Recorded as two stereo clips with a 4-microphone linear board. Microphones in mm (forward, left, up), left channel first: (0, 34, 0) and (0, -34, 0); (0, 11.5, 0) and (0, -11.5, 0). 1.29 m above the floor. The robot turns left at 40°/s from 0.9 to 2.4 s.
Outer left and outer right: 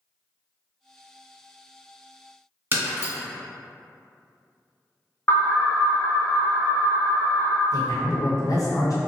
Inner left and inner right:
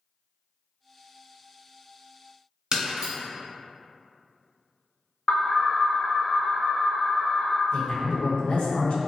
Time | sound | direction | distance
2.7 | breaking glass | 30° right (ahead or behind) | 1.2 m
5.3 | an alarm | 30° left (ahead or behind) | 1.0 m
7.7 | a man speaking | 55° left (ahead or behind) | 0.9 m